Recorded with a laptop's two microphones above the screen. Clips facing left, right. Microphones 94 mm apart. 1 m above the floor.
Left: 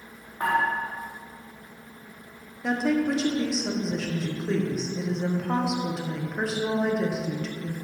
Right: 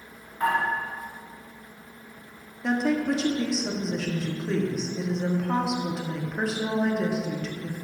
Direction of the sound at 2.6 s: Centre (ahead or behind).